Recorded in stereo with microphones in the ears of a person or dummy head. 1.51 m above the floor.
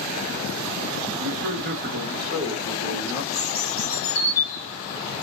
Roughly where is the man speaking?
Right.